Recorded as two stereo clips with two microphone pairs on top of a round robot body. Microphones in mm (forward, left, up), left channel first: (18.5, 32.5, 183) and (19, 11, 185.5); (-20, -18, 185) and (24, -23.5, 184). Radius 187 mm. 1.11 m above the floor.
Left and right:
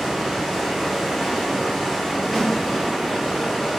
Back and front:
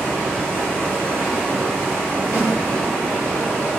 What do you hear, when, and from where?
0.0 s running water: 20° left, 1.4 m
2.3 s a snare drum: 20° left, 1.3 m